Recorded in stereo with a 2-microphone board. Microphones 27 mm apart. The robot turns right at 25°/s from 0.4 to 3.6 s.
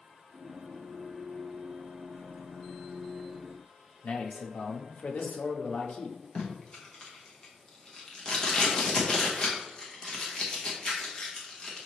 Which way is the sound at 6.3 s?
25° left (ahead or behind).